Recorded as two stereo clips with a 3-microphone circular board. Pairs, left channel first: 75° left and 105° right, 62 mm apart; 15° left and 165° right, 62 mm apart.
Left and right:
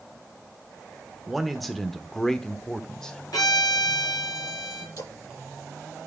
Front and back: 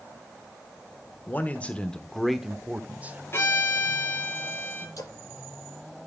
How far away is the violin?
About 4 m.